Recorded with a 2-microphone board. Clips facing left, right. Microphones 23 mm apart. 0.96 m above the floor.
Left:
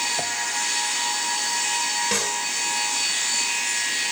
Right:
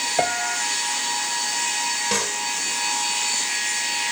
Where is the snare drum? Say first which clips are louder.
Even; 5° right (ahead or behind).